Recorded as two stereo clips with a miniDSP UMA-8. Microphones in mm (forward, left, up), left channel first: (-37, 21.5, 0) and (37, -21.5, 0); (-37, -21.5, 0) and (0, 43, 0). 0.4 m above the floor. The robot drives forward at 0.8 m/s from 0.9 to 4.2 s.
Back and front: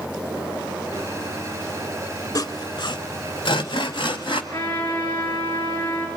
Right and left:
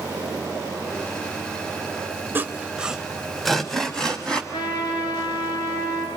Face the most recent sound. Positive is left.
turn(degrees=-145)